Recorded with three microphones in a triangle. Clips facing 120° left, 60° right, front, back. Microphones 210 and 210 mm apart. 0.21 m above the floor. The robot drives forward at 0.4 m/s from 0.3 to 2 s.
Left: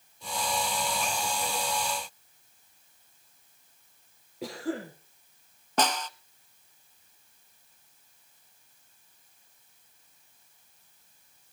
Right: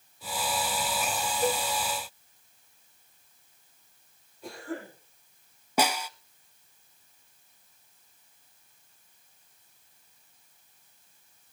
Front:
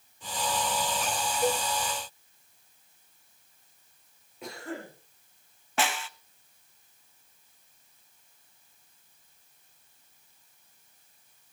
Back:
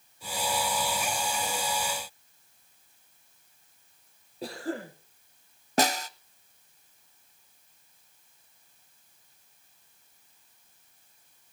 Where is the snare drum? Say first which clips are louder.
Right 1 dB, back 5 dB; 140° right, 0.7 m.